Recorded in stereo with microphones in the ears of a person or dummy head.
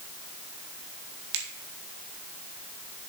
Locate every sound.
1.3 s a finger snap: 65° right (ahead or behind), 2 m